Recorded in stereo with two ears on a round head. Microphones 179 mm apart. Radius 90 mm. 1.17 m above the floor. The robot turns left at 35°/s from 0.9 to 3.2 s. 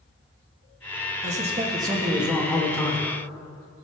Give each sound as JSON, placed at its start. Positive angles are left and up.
{"t": 1.2, "sound": "a man speaking", "azimuth_deg": -140, "distance_m": 1.4}